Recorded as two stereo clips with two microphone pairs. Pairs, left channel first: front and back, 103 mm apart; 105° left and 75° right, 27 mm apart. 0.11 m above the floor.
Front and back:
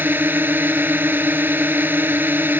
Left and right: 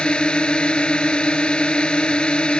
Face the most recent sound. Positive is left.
turn(degrees=120)